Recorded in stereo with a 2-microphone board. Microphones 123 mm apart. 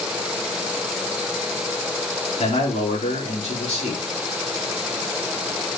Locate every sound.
2.4 s a man speaking: 65° left (ahead or behind), 3.5 m